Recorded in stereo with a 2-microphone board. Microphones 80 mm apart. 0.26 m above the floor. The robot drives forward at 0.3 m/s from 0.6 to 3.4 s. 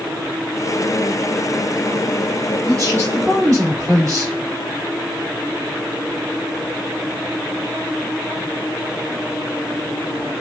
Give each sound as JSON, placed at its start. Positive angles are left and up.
{"t": 2.7, "sound": "a man speaking", "side_deg": -45, "distance_m": 2.0}